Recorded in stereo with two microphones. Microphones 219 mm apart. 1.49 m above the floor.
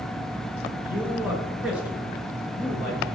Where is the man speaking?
5° right (ahead or behind), 5 m.